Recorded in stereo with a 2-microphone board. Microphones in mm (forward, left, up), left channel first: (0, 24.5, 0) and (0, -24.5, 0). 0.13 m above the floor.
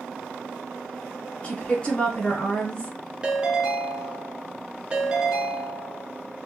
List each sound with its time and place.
1.4 s a woman speaking: 25° left (ahead or behind), 1.4 m
3.2 s a ringtone: 20° right (ahead or behind), 0.6 m